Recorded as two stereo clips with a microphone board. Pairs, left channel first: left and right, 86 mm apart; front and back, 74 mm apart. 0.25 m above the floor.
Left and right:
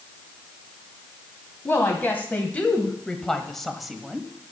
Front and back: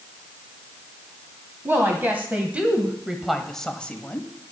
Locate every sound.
1.6 s a woman speaking: 140° left, 1.5 m; by 4.3 s 20° right, 1.2 m